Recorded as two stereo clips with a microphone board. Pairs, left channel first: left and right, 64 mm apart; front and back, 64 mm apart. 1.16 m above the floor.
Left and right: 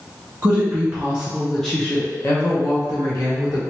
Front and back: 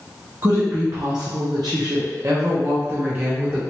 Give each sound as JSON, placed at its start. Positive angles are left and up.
{"t": 0.4, "sound": "a woman speaking", "azimuth_deg": -140, "distance_m": 0.8}